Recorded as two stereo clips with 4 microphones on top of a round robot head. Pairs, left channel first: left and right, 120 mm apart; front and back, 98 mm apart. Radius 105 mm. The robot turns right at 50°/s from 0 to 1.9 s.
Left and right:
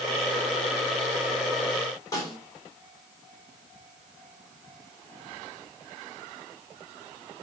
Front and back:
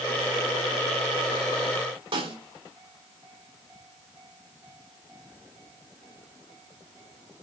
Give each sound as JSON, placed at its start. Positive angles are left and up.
{"t": 2.1, "sound": "a snare drum", "azimuth_deg": 155, "distance_m": 3.5}